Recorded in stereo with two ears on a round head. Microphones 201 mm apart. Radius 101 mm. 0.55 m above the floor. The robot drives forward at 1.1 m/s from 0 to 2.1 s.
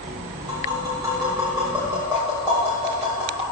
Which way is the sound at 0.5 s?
20° right (ahead or behind).